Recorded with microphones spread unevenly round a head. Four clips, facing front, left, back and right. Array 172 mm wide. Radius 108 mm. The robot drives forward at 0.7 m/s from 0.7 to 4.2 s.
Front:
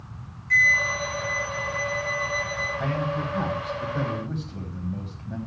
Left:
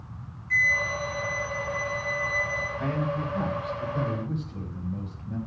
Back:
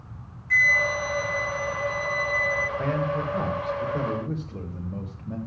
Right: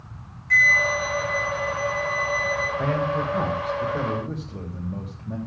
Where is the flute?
95° right, 0.9 m; by 2.7 s 155° right, 1.7 m.